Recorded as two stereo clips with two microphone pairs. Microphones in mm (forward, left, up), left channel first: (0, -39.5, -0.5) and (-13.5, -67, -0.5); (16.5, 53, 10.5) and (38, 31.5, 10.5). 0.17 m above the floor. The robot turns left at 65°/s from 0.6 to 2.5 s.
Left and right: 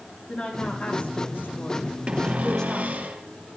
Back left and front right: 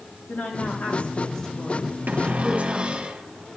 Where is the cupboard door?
60° right, 2.5 m; by 3.2 s 90° right, 2.5 m.